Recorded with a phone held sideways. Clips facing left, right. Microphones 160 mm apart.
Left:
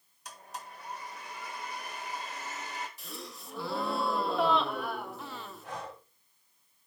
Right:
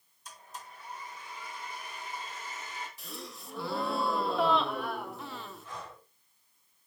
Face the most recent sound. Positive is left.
turn(degrees=75)  # may be behind; listen again after turning